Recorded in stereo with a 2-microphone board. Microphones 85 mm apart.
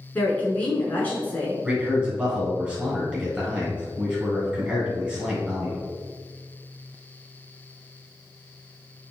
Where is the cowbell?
No cowbell in this recording.